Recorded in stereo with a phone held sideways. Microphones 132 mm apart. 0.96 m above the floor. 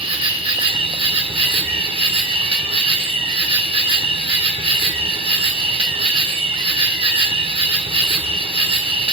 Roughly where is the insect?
Right.